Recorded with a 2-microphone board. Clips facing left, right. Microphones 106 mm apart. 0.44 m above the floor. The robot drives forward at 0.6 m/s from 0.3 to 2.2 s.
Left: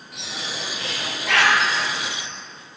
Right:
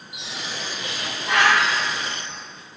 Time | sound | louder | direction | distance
0.1 | a bird | left 1 dB | 80° left | 3.5 m